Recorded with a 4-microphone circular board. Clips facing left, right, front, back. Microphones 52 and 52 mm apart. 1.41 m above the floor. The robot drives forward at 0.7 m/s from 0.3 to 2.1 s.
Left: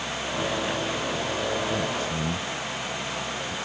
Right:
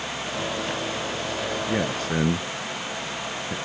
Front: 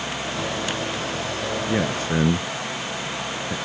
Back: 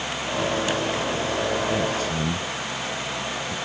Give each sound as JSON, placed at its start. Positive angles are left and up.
{"t": 1.7, "sound": "a man speaking", "azimuth_deg": -50}